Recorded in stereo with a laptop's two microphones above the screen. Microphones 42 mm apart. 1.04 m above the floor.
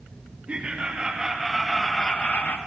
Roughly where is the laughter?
Right.